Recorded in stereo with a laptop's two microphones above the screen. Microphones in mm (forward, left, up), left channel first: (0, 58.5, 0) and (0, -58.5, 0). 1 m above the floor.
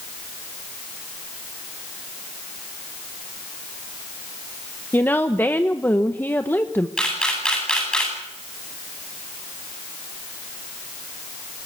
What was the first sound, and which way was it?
A woman speaking, 15° left (ahead or behind).